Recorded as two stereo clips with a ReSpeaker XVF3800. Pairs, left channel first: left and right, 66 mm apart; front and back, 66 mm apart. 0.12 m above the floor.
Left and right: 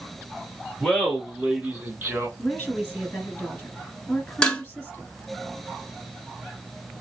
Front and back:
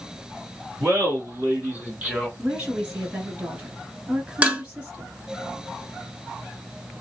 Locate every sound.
0.8 s laughter: 170° left, 1.7 m; by 2.3 s 110° right, 1.6 m
2.4 s a woman speaking: 135° left, 1.9 m
4.4 s dishes clattering: 145° left, 0.8 m